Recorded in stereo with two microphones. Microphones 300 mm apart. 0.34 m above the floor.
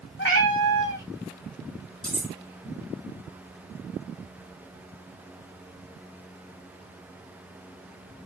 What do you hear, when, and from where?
0.2 s a cat meowing: 40° left (ahead or behind), 0.9 m
2.0 s cutlery clinking: 20° left (ahead or behind), 1.1 m